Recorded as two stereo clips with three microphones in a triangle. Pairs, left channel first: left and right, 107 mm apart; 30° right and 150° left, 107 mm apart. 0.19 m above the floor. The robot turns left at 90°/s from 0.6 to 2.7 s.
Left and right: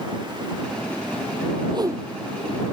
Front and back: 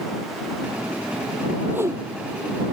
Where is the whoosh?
130° right; by 2.1 s 165° right.